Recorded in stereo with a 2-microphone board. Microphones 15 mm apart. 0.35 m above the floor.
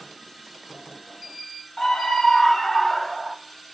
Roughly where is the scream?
Left.